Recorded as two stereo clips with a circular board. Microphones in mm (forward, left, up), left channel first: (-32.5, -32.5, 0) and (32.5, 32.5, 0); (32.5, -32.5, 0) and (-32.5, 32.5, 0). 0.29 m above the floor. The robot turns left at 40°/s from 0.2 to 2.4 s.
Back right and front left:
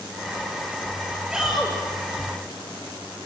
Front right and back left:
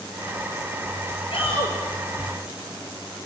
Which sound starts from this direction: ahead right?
A shout, at 1.3 s.